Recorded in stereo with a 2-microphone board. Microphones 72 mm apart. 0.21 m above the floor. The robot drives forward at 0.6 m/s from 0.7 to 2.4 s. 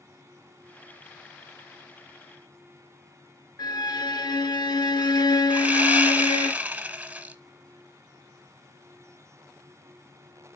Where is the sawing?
20° right (ahead or behind), 1.0 m.